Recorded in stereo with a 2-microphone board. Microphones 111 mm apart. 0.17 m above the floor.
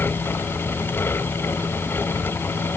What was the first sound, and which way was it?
Only background noise.